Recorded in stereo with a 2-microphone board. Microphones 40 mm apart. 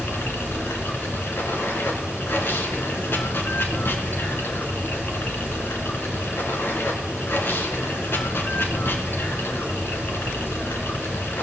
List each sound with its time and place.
0.0 s running water: 65° left (ahead or behind), 1.9 m